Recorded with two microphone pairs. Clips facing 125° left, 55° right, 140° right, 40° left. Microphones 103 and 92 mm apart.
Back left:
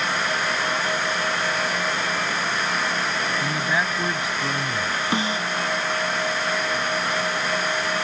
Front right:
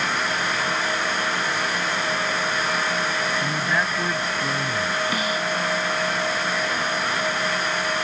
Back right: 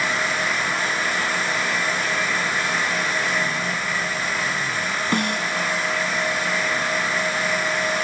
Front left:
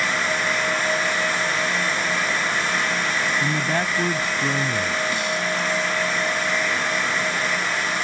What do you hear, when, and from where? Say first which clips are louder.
3.4 s a man speaking: even, front left 3 dB; 40° left
5.1 s a snare drum: back left 1 dB, back right 2 dB; 175° right